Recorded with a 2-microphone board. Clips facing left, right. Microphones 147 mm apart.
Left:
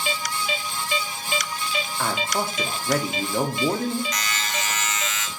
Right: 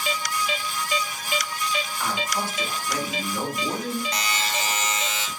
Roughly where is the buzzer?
Right.